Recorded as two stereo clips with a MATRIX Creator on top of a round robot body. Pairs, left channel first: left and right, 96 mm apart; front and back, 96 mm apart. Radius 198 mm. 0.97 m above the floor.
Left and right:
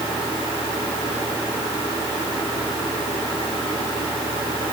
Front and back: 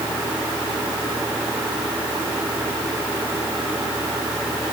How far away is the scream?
I don't hear a scream.